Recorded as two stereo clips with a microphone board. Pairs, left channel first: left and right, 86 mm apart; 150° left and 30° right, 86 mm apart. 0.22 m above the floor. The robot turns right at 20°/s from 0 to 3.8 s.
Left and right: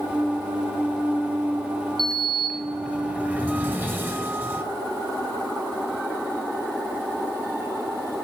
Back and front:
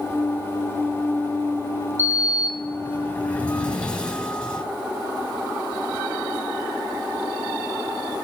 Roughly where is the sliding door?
Behind.